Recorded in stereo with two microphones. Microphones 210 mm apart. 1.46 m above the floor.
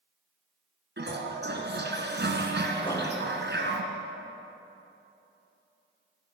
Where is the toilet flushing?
55° right (ahead or behind), 2.5 m.